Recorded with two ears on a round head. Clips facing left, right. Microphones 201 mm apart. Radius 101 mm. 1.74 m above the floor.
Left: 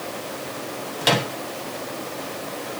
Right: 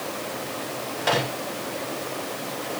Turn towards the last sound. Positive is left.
turn(degrees=45)  # may be behind; listen again after turning